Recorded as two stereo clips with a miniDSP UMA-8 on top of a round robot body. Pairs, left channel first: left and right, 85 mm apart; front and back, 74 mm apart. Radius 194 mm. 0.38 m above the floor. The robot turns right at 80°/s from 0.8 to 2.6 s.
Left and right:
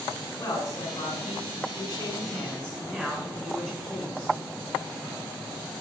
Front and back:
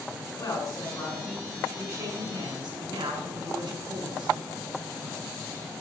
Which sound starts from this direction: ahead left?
A man speaking, at 0.4 s.